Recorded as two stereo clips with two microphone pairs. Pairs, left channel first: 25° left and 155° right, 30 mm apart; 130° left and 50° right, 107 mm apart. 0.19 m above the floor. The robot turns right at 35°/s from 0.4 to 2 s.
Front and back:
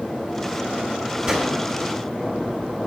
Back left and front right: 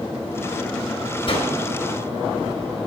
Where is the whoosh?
140° left, 1.8 m; by 1.5 s 150° left, 1.8 m.